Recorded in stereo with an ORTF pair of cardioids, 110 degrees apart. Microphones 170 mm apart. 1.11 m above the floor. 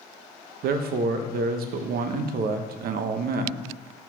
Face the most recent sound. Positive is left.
turn(degrees=-65)